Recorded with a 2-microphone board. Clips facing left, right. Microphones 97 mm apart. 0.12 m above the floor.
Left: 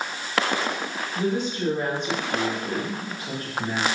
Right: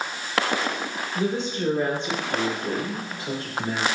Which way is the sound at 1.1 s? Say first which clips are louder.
Left 1 dB; 25° right (ahead or behind).